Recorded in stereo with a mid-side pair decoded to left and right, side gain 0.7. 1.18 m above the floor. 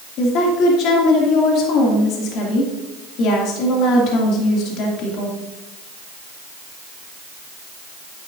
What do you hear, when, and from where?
0.2 s a woman speaking: 55° left, 2.5 m